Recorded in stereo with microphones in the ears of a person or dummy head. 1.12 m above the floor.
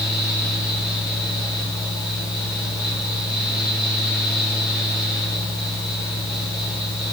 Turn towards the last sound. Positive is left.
turn(degrees=-10)  # may be behind; listen again after turning